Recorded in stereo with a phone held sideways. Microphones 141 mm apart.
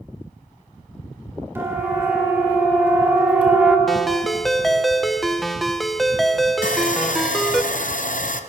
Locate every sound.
1.6 s a siren: 20° right (ahead or behind), 3 m; by 3.8 s 10° right (ahead or behind), 1.7 m
3.9 s a ringtone: centre (ahead or behind), 0.5 m
6.6 s sawing: 70° left (ahead or behind), 0.6 m